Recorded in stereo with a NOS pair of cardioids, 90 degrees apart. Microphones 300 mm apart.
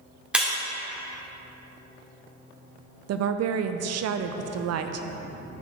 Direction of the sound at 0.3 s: 5° right.